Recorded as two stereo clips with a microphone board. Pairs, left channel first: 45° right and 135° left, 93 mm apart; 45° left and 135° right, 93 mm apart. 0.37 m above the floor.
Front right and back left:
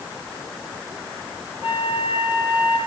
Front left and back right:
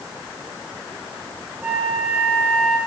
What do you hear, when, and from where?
1.6 s a flute: 65° right, 7 m